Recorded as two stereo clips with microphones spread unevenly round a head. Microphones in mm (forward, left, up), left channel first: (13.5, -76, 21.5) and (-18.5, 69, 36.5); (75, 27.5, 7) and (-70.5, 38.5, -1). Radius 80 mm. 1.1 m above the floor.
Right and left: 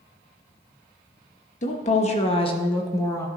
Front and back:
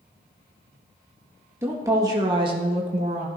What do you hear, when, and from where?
1.6 s a woman speaking: 110° right, 1.6 m; by 3.3 s 145° right, 1.2 m